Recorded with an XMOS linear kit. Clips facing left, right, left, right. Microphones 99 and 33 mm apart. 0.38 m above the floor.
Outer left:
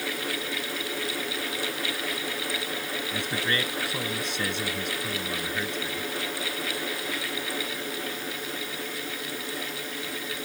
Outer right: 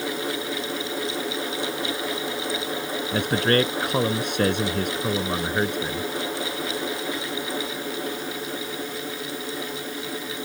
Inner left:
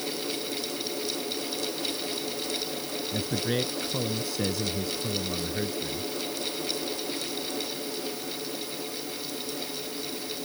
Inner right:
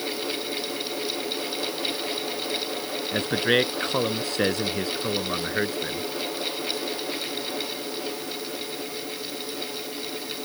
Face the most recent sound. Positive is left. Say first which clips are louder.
# outer right 10 dB, inner right 8 dB
turn(degrees=-60)  # may be behind; listen again after turning